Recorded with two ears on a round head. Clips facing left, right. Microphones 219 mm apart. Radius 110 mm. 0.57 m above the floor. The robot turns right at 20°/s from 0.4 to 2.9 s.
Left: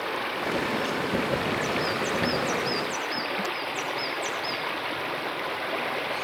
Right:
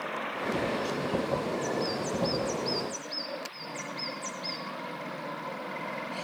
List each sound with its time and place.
0.0 s running water: 55° left; by 6.2 s 105° left